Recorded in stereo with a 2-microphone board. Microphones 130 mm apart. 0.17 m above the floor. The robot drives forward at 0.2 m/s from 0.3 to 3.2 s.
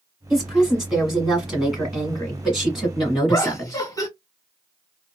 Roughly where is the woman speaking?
Centre.